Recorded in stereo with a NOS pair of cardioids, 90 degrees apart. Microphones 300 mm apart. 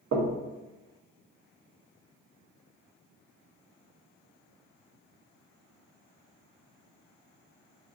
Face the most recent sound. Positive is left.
turn(degrees=-70)